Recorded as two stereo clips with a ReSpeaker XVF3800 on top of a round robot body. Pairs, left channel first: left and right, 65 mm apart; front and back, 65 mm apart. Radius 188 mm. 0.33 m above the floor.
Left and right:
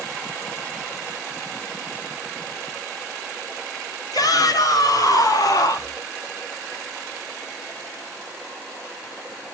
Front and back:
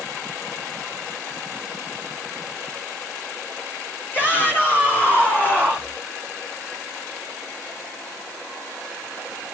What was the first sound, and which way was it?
A shout, 60° left.